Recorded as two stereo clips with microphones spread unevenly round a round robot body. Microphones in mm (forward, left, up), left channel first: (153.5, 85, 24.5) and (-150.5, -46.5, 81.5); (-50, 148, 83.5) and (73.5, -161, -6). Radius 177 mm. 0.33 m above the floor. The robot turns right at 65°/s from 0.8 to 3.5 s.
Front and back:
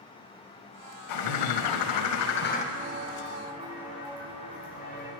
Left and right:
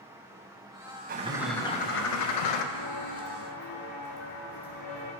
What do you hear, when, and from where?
1.1 s a bird: 5° right, 0.6 m; by 2.6 s 95° left, 0.6 m
2.7 s footsteps: 135° left, 1.6 m; by 5.1 s 85° left, 3 m